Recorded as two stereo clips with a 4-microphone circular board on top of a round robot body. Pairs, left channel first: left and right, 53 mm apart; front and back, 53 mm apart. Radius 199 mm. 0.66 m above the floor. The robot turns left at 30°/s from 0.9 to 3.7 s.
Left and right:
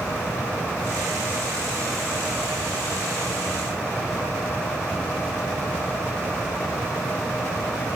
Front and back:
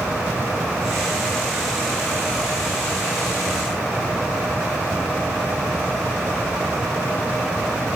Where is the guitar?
No guitar in this recording.